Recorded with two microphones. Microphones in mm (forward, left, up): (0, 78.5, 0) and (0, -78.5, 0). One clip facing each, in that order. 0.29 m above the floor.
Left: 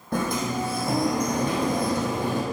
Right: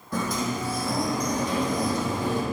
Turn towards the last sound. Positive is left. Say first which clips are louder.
# left 2 dB
turn(degrees=60)  # may be behind; listen again after turning